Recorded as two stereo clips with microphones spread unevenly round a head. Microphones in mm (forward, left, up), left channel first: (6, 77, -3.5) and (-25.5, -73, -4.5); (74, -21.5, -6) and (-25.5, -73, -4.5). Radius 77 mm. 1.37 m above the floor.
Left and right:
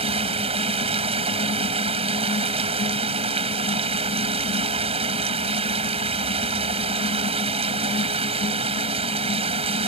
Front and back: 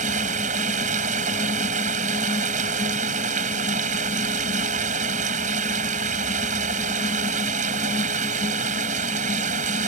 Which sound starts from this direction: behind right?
Running water, at 0.0 s.